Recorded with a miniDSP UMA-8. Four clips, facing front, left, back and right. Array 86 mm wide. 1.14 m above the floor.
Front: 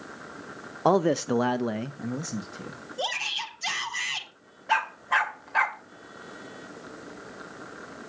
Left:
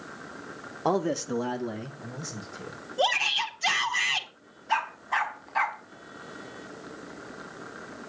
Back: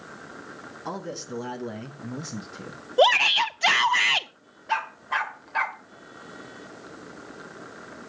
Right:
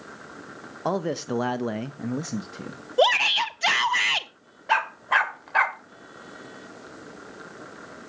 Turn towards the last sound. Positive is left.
turn(degrees=-80)